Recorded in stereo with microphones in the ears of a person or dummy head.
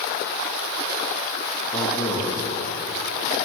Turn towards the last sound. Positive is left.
turn(degrees=10)  # may be behind; listen again after turning